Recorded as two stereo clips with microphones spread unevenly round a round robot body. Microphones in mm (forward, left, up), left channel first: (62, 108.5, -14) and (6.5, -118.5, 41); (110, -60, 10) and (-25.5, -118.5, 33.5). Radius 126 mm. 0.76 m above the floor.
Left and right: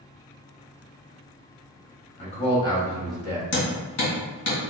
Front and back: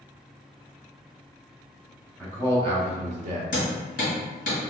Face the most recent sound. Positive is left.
turn(degrees=75)